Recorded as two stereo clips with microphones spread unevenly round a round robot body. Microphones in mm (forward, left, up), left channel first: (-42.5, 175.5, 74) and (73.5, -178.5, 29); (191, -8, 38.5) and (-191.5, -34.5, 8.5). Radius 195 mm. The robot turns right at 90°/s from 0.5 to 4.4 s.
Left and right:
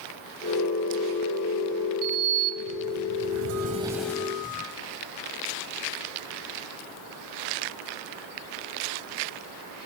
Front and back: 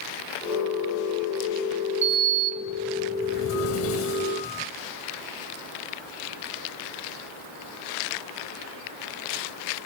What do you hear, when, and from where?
2.0 s a sliding door: 155° right, 0.6 m; by 4.7 s 60° left, 0.6 m